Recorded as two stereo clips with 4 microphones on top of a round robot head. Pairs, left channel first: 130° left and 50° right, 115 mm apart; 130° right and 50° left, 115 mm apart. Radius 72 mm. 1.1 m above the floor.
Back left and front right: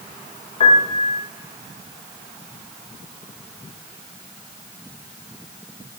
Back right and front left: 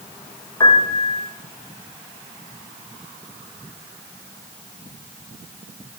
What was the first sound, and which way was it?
A piano, 170° left.